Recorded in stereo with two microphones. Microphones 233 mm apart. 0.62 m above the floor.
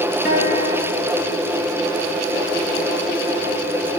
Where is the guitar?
45° left (ahead or behind), 4.5 m.